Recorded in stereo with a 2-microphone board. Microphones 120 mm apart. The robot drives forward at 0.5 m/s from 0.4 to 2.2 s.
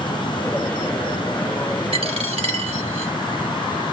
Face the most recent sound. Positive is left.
turn(degrees=-55)  # may be behind; listen again after turning